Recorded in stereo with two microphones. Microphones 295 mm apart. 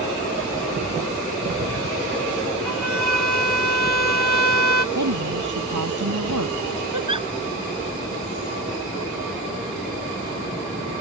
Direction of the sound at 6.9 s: 80° right.